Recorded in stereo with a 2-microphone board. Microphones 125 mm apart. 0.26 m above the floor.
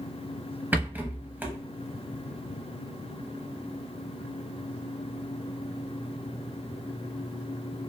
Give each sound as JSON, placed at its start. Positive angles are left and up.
{"t": 0.7, "sound": "a rattle", "side_deg": -15, "distance_m": 0.5}